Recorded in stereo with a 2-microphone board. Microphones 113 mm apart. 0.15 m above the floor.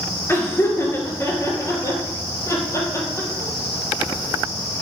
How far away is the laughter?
About 2.5 m.